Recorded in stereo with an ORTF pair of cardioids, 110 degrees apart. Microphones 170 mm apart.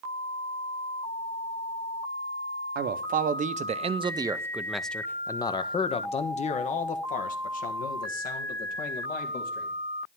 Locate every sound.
2.8 s a man speaking: 65° right, 1.1 m; by 9.7 s 65° left, 2.5 m